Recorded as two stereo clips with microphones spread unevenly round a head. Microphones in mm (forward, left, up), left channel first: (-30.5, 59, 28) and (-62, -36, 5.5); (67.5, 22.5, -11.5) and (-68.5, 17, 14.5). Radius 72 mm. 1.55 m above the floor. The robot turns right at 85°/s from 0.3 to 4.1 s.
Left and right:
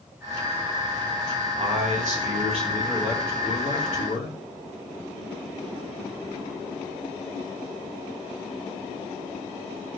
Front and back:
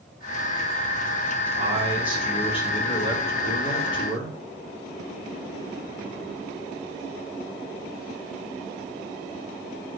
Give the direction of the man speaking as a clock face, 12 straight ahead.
5 o'clock.